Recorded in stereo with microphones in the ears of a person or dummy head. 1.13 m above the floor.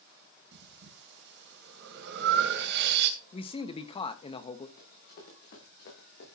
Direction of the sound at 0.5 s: 65° right (ahead or behind).